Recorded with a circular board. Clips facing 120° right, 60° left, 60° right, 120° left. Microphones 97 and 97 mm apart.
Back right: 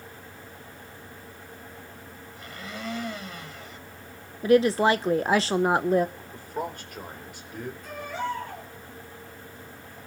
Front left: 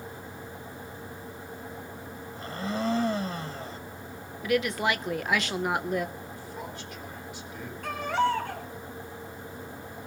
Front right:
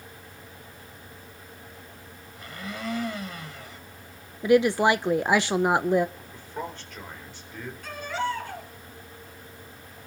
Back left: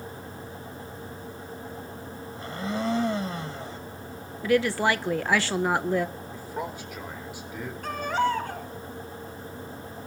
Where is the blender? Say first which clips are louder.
Front left 8 dB, back left 7 dB; 85° left, 0.9 m.